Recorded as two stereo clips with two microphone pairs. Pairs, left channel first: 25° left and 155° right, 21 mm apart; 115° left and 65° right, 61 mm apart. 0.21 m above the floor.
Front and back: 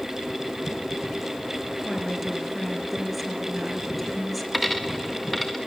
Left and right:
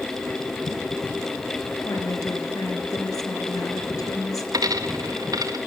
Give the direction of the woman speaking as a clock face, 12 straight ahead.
8 o'clock.